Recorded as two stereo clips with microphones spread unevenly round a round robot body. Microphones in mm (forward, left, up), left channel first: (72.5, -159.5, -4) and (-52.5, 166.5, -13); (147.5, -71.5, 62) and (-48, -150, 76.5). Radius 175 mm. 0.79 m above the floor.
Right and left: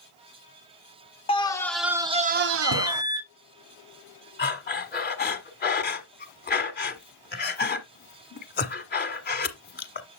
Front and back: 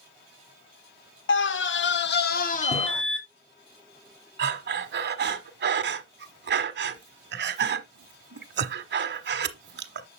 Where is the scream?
5° left, 1.1 m; by 3.0 s 90° left, 0.9 m.